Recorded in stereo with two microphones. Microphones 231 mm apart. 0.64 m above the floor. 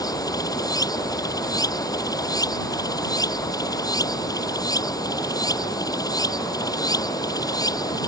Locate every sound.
0.0 s running water: 15° left (ahead or behind)